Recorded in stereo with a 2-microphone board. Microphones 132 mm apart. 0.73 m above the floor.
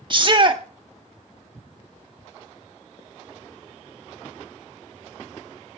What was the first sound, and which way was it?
A shout, 35° right (ahead or behind).